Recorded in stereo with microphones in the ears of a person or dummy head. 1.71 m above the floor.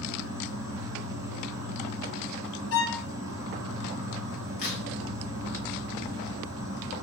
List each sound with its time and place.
0.0 s an insect: 15° right (ahead or behind), 0.9 m
2.7 s a violin: 75° left (ahead or behind), 0.7 m
4.6 s a crack: 40° left (ahead or behind), 1.0 m